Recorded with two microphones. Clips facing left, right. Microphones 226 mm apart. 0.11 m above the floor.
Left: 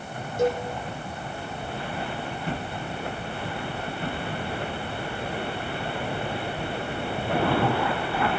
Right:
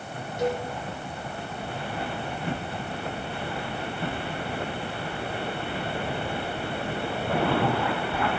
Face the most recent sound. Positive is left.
turn(degrees=45)  # may be behind; listen again after turning